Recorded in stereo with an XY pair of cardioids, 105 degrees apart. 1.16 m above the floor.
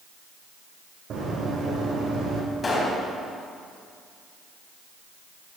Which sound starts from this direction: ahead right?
Running footsteps, at 1.1 s.